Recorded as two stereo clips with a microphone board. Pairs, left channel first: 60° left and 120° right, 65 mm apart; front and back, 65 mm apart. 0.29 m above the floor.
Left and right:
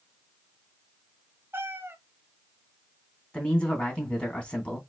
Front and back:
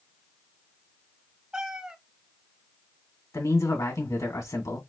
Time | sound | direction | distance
1.5 | a cat meowing | 110° right | 0.7 m
3.3 | a man speaking | 10° right | 2.5 m